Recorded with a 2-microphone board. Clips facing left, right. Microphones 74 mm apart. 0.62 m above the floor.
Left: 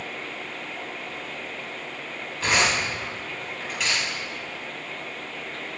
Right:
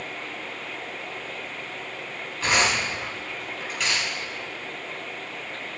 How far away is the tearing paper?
About 5 m.